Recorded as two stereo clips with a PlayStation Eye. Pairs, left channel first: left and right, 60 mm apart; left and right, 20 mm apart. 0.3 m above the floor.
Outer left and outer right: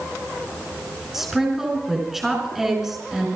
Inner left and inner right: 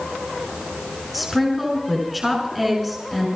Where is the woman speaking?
5° right (ahead or behind), 4.5 m.